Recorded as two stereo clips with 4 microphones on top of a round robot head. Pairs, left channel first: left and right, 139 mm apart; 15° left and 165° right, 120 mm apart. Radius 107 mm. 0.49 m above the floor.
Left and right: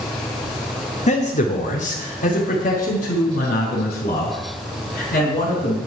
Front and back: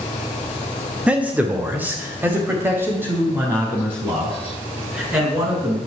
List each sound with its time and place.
1.1 s a man speaking: 115° left, 1.4 m; by 5.8 s 125° left, 5.5 m